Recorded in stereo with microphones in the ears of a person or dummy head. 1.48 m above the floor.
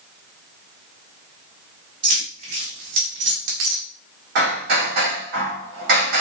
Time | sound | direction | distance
2.0 | keys jangling | 35° right (ahead or behind) | 1.8 m
4.3 | hammering | 50° right (ahead or behind) | 1.5 m